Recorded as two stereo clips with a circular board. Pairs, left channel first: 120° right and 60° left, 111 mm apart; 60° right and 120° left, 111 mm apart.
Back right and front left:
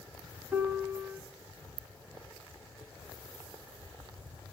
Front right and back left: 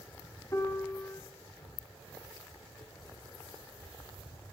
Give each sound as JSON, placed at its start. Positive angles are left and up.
{"t": 0.5, "sound": "a piano", "azimuth_deg": -5, "distance_m": 0.8}